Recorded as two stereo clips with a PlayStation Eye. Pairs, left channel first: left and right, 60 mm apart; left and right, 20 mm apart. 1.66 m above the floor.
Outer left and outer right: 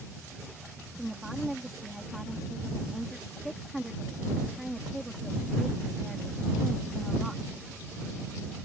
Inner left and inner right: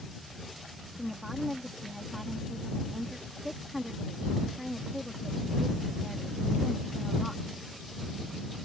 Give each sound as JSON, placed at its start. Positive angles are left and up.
{"t": 1.0, "sound": "a woman speaking", "side_deg": -5}